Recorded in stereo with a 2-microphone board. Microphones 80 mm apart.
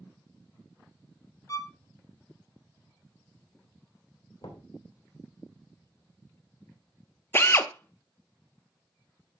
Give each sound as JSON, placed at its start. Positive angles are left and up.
{"t": 1.5, "sound": "a violin", "side_deg": 40, "distance_m": 0.6}
{"t": 4.4, "sound": "knocking", "side_deg": 75, "distance_m": 2.5}
{"t": 7.3, "sound": "a drill", "side_deg": 30, "distance_m": 0.6}